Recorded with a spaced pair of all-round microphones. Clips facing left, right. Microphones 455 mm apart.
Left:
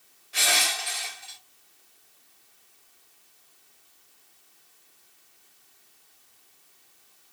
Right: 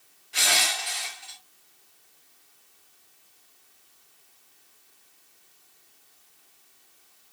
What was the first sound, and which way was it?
Crushing, 15° right (ahead or behind).